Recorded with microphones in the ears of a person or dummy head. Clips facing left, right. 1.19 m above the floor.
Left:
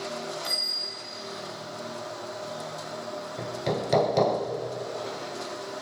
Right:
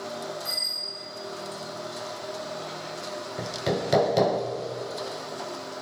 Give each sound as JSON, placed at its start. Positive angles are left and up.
{"t": 0.4, "sound": "a bicycle bell", "side_deg": 20, "distance_m": 6.5}
{"t": 3.4, "sound": "hammering", "side_deg": -5, "distance_m": 0.6}